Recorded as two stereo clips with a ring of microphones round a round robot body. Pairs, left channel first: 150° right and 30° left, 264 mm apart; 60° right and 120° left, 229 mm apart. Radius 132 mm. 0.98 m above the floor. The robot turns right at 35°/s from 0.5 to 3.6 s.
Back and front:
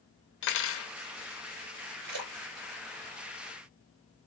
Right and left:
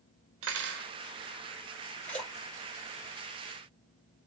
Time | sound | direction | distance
0.4 | cutlery clinking | 165° left | 0.6 m
2.0 | a splash | 20° left | 2 m